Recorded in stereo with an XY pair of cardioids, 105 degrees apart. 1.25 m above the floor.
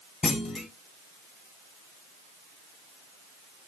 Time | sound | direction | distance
0.2 | a clunk | 45° left | 1.1 m